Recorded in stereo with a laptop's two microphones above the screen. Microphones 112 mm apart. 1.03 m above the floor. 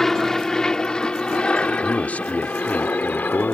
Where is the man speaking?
15° left (ahead or behind).